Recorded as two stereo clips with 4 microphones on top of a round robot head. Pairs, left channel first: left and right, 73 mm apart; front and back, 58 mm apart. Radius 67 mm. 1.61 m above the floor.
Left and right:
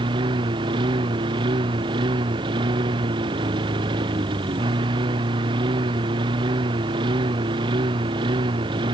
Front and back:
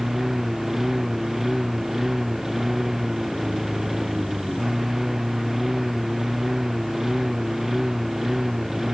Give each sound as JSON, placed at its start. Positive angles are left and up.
{"t": 0.0, "sound": "a lawn mower", "azimuth_deg": -95}